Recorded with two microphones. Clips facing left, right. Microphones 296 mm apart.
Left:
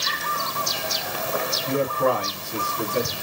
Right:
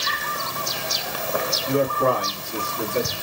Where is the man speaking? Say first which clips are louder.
Right 1 dB; 5° right (ahead or behind), 1.5 m; by 3.2 s 25° left (ahead or behind), 1.4 m.